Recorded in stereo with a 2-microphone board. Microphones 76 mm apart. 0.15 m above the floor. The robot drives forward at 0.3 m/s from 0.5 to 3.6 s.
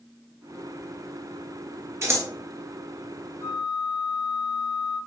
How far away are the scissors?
About 0.8 m.